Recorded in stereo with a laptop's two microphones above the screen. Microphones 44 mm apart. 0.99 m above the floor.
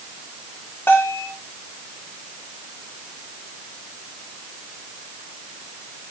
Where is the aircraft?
I don't hear an aircraft.